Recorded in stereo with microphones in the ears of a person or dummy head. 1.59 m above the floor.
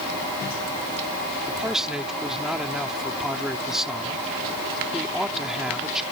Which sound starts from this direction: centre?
A man speaking, at 1.5 s.